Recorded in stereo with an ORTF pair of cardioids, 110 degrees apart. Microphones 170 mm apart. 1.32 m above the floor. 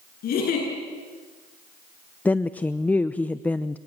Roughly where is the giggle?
Ahead left.